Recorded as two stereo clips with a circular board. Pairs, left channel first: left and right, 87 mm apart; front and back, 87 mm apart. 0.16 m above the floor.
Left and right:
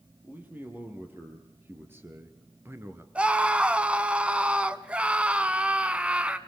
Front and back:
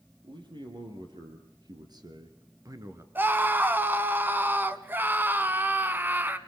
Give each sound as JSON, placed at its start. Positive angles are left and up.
{"t": 0.2, "sound": "a man speaking", "azimuth_deg": -160, "distance_m": 4.5}
{"t": 3.1, "sound": "a scream", "azimuth_deg": -150, "distance_m": 1.1}